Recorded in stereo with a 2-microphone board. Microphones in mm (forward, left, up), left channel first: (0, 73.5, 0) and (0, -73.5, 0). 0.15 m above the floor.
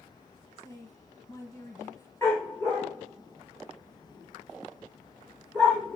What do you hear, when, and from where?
0.6 s a woman speaking: 25° left (ahead or behind), 1.4 m
2.2 s a dog barking: 15° left (ahead or behind), 5 m